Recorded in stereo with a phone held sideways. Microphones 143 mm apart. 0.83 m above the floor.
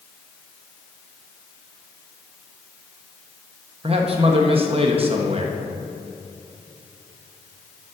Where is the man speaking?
40° right (ahead or behind), 0.7 m.